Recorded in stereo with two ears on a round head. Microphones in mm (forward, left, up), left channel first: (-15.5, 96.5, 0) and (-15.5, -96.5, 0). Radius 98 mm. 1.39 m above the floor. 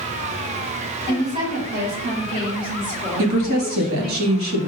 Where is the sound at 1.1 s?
40° right (ahead or behind), 3.5 m; by 4.2 s 5° left (ahead or behind), 2 m.